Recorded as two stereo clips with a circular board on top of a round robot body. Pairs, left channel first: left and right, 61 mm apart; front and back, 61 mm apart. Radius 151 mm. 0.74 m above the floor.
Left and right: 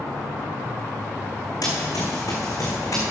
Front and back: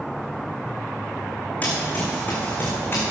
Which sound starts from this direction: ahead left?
Running footsteps, at 1.6 s.